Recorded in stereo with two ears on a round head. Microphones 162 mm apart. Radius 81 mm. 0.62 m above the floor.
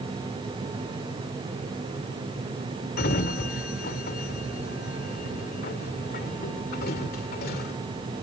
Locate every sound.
3.0 s a sliding door: 55° left (ahead or behind)